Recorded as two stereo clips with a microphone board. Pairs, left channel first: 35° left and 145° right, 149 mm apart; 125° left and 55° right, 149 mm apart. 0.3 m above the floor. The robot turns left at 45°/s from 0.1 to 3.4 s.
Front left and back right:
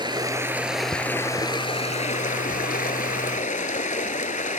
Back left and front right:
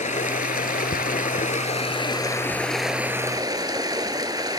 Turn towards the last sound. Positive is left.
turn(degrees=10)